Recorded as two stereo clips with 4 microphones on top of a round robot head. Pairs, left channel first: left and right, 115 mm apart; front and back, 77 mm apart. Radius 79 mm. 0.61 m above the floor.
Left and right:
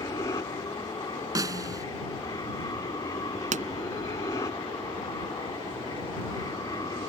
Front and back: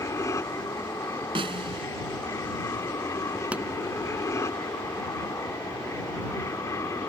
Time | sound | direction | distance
0.0 | an aircraft | 35° left | ?
1.4 | a snare drum | 150° right | ?
3.5 | a pop | 100° right | ?